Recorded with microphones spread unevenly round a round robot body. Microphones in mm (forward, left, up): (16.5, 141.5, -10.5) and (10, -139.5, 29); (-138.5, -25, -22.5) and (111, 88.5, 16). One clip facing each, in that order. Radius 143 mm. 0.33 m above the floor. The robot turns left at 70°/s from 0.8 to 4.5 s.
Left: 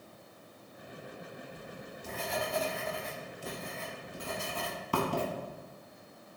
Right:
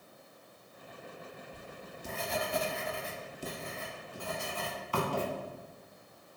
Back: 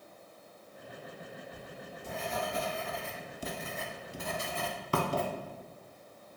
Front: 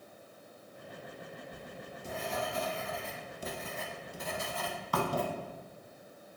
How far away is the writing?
About 0.5 m.